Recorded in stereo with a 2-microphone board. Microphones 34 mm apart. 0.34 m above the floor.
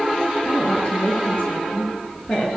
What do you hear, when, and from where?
0.5 s a woman speaking: 40° left (ahead or behind), 6.5 m